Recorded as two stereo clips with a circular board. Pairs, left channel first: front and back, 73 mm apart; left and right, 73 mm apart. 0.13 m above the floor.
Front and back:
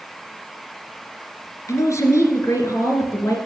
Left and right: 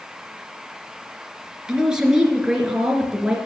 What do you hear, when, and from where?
1.7 s a man speaking: 15° right, 2 m